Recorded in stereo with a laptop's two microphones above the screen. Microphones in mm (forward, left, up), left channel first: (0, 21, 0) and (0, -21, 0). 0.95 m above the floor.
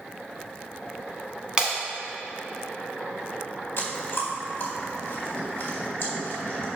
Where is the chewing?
65° left (ahead or behind), 1.8 m.